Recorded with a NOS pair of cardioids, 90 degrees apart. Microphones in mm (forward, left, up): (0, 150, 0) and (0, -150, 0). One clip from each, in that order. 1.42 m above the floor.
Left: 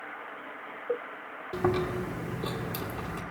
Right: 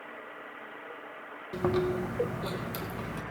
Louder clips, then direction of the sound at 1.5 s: Even; 5° left.